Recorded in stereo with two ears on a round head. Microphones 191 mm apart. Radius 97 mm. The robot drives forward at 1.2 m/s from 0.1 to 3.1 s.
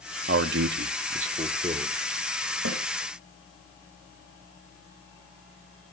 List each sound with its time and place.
0.3 s a man speaking: 45° right (ahead or behind), 0.8 m; by 2.0 s 20° right (ahead or behind), 1.8 m
2.6 s a snare drum: 75° right (ahead or behind), 4.5 m